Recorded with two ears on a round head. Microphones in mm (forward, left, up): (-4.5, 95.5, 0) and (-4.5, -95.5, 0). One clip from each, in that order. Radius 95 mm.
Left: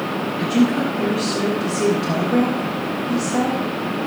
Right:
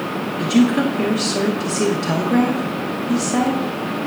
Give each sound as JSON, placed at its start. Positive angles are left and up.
{"t": 0.4, "sound": "a woman speaking", "side_deg": -40, "distance_m": 1.1}